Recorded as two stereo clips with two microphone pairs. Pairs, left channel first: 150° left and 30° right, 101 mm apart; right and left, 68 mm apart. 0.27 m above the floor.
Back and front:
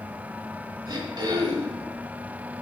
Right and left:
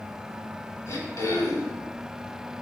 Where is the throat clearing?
65° right, 0.8 m.